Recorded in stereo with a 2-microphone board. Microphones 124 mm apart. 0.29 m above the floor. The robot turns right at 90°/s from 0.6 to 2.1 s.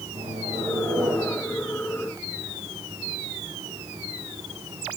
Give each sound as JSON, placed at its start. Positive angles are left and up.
{"t": 0.1, "sound": "a microwave", "azimuth_deg": -70, "distance_m": 9.0}